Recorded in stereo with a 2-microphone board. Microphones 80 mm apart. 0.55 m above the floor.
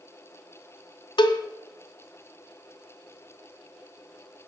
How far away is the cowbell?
About 0.5 m.